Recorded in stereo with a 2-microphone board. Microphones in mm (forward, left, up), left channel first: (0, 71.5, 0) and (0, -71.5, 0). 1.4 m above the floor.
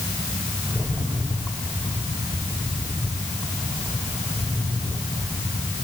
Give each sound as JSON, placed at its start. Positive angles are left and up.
{"t": 0.7, "sound": "a rattle", "side_deg": 20, "distance_m": 7.5}